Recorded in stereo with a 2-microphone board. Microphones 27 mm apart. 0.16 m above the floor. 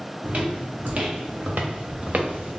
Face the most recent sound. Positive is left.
turn(degrees=-55)  # may be behind; listen again after turning